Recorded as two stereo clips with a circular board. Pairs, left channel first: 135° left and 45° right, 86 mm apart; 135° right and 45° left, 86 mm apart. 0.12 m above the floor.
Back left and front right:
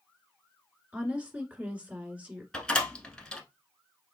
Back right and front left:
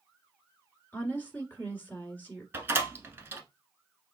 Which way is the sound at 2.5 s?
65° left.